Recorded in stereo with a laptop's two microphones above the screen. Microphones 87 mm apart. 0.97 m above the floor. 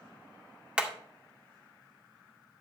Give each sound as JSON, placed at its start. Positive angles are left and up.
{"t": 0.8, "sound": "hammering", "side_deg": -15, "distance_m": 2.0}